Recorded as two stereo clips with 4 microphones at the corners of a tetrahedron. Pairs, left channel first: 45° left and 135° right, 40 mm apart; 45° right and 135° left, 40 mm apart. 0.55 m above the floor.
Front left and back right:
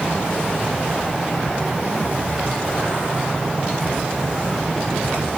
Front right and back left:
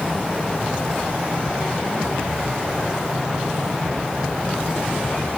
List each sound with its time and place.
Only background noise.